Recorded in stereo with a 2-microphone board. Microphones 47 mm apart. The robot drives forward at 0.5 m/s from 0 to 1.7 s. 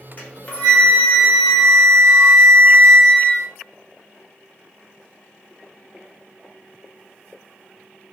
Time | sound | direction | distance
0.2 | a flute | 40° left (ahead or behind) | 1.0 m